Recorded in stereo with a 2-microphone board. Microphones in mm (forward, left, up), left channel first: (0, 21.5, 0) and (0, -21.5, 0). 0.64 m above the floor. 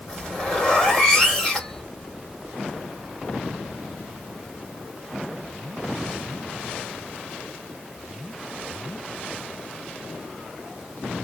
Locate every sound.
0.1 s a zipper: 20° left (ahead or behind), 1.5 m